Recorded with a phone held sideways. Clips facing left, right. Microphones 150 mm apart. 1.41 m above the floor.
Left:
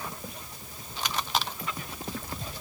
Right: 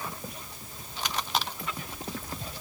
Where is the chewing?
No chewing in this recording.